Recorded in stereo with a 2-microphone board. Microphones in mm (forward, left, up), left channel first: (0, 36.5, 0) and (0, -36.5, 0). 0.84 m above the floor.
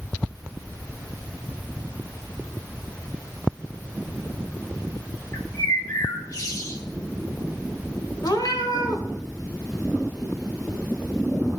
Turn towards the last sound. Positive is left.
turn(degrees=65)  # may be behind; listen again after turning